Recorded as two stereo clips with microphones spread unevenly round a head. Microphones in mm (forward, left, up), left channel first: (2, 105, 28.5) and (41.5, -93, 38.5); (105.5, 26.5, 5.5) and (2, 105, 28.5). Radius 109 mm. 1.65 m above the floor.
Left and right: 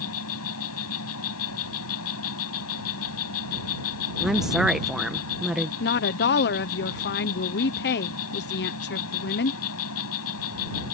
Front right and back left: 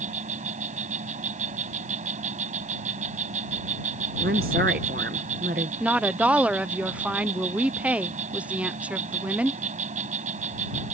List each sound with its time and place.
0.0 s an insect: 125° left
4.2 s a woman speaking: 165° right
5.8 s a woman speaking: 60° left